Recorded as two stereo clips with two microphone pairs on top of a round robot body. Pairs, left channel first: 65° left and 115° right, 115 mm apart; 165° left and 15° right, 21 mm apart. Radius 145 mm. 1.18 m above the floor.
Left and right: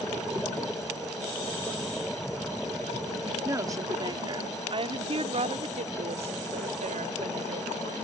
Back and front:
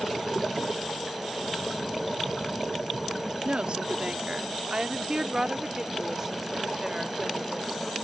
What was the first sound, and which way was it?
A woman speaking, 50° right.